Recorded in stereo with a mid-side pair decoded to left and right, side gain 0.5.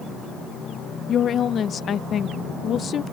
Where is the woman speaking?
50° left.